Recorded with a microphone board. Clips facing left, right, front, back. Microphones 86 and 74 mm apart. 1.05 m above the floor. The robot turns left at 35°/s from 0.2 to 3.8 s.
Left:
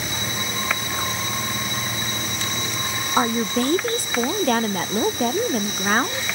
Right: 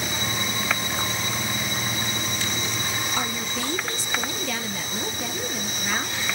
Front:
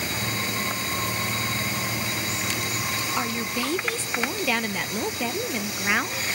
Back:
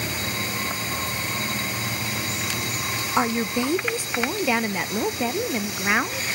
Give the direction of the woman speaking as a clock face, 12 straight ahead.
8 o'clock.